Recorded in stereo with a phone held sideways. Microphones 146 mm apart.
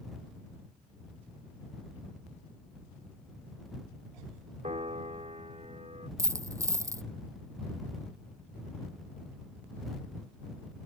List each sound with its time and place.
4.6 s a piano: 50° right (ahead or behind)
6.2 s a dropped coin: 20° right (ahead or behind)